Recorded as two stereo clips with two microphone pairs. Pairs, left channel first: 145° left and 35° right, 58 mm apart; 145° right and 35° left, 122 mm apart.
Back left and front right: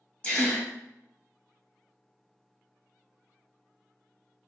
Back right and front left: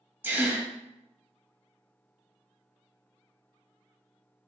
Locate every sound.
0.2 s a gasp: 95° left, 0.9 m